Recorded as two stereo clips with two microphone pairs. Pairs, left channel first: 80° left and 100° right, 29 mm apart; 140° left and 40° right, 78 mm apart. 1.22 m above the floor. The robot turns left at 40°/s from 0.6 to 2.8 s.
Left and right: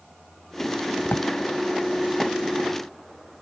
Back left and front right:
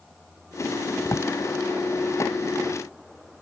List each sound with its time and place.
1.0 s a drawer: 100° left; by 1.3 s 85° left